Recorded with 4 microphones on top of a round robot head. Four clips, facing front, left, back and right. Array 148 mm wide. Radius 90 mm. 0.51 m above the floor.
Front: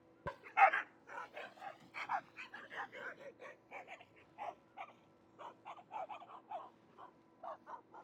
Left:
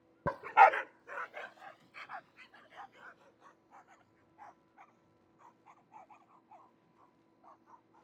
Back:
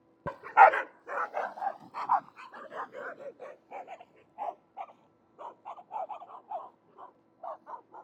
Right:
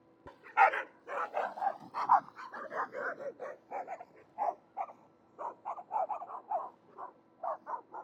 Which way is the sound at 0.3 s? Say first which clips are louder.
Left 4 dB, back 11 dB; 120° left.